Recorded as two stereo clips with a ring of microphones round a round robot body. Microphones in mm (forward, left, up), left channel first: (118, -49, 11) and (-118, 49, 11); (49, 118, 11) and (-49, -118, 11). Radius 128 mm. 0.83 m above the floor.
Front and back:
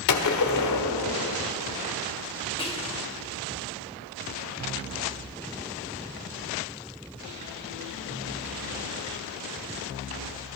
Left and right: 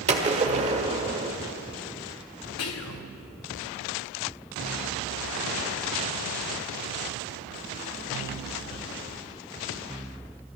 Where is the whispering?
45° left, 1.7 m.